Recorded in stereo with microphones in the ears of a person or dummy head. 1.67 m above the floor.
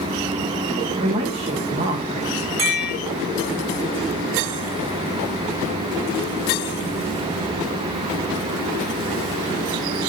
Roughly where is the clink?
Right.